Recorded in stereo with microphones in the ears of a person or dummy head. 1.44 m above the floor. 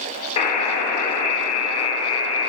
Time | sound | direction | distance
0.4 | a buzzer | 30° left (ahead or behind) | 1.7 m